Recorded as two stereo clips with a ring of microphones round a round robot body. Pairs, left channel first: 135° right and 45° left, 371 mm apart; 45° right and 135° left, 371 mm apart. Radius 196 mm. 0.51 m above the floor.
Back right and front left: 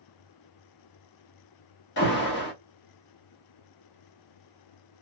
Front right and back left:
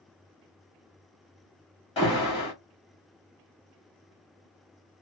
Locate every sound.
2.0 s an alarm: 105° right, 1.7 m